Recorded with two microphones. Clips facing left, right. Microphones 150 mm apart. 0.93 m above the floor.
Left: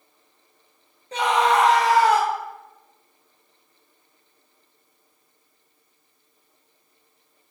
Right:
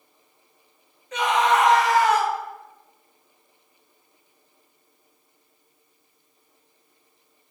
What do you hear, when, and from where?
1.1 s a scream: 35° left (ahead or behind), 0.8 m